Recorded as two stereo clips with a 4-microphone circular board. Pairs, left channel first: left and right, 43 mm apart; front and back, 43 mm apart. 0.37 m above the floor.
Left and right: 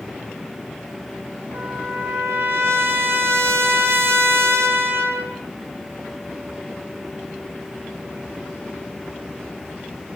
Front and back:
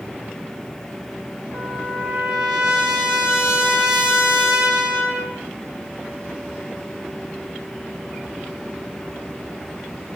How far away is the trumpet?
About 5.5 m.